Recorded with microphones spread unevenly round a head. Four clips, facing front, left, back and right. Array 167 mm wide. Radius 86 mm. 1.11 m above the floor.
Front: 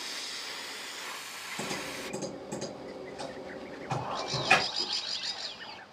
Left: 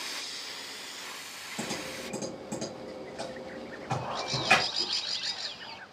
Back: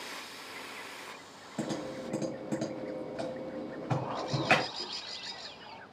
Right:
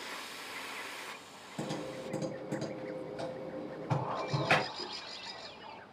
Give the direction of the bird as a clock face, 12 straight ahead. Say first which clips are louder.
Left 1 dB, even; 10 o'clock.